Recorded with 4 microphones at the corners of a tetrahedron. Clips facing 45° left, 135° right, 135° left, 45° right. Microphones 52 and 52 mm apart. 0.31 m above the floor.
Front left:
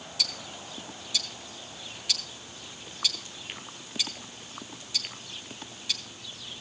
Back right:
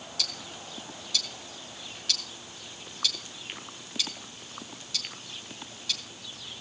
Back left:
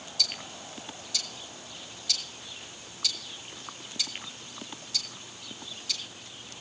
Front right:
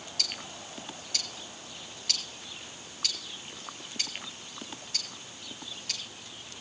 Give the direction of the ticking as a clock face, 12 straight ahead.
1 o'clock.